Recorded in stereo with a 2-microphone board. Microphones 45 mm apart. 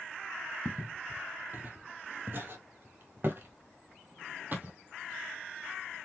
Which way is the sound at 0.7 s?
35° right (ahead or behind).